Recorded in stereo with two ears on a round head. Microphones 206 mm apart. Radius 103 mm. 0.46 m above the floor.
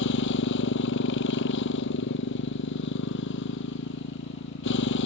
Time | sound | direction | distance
0.0 | a motorcycle | 55° left (ahead or behind) | ?